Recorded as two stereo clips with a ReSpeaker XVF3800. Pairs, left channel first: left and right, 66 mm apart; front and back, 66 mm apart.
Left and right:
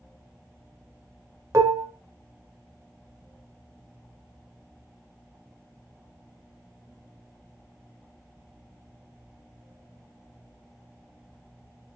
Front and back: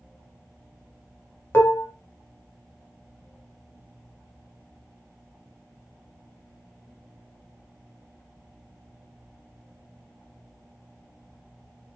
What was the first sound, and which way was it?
Dishes clattering, 50° right.